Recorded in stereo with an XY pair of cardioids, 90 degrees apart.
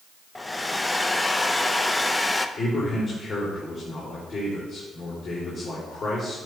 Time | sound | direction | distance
0.3 | a hair dryer | 15° left | 0.6 m
2.6 | a man speaking | 40° left | 3 m